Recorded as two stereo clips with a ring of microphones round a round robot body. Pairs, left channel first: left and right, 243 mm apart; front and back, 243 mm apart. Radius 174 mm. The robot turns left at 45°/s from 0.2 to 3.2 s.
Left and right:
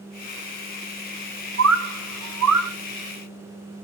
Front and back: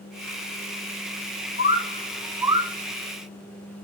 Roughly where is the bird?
Ahead right.